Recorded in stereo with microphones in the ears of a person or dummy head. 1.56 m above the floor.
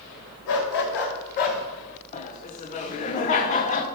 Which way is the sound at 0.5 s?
65° left (ahead or behind).